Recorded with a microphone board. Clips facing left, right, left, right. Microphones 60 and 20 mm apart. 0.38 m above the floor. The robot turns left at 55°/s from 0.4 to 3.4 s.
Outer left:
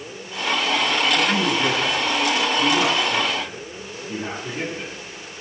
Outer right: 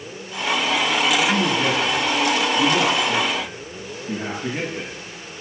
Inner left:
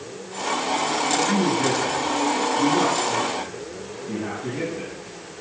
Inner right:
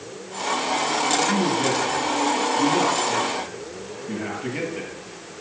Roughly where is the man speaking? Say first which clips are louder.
Outer right 1 dB, even; left.